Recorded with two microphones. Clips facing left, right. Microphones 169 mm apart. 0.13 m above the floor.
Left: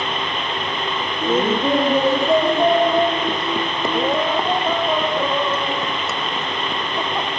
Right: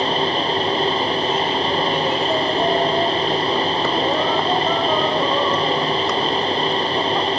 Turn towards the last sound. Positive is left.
turn(degrees=0)  # may be behind; listen again after turning